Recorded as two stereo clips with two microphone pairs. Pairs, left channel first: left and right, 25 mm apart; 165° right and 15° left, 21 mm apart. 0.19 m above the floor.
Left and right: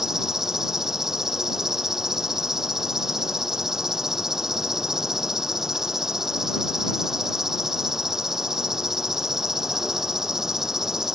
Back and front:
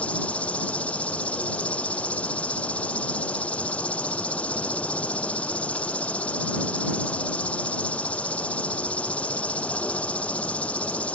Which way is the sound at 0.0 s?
160° right.